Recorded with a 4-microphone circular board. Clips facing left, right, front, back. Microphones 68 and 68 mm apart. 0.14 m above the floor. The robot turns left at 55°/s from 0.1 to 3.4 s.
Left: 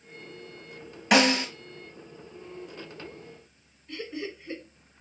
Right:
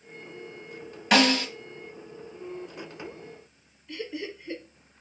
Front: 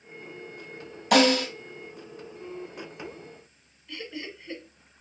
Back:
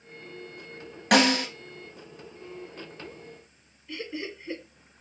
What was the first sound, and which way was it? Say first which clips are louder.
A snare drum: even, front 1 dB; 175° left.